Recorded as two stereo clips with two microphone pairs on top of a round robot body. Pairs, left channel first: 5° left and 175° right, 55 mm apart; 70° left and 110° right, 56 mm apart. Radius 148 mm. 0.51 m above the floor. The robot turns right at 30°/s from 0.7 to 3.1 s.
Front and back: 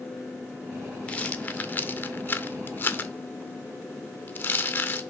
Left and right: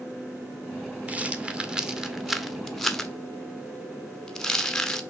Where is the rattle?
55° right, 1.0 m; by 5.0 s 5° left, 1.0 m.